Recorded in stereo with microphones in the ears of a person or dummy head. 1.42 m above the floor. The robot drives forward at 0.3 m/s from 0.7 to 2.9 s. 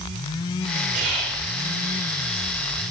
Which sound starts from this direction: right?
Whispering, at 0.9 s.